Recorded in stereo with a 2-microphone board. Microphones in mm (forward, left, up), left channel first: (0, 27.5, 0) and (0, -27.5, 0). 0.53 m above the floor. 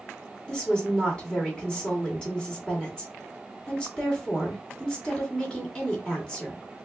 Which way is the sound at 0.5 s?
15° left (ahead or behind).